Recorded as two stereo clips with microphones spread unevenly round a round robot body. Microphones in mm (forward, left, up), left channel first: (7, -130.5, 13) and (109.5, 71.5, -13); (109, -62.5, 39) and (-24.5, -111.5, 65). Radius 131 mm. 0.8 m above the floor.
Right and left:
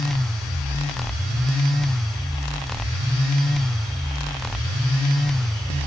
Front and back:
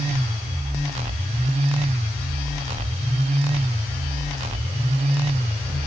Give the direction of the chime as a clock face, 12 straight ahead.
I don't hear a chime.